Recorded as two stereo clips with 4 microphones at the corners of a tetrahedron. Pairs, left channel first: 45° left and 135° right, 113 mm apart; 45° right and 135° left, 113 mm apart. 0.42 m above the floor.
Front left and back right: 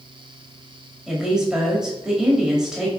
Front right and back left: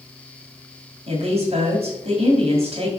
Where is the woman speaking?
140° left, 2 m.